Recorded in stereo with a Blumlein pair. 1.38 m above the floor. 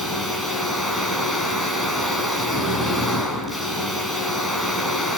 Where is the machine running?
Straight ahead, 5.5 m.